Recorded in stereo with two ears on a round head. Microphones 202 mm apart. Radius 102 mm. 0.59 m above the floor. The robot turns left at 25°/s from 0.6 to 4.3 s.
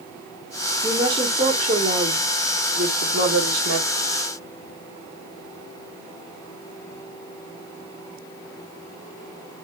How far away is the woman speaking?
About 1.0 m.